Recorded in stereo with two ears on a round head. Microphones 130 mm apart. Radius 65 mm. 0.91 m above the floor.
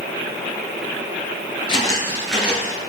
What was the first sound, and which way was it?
Footsteps, 35° left (ahead or behind).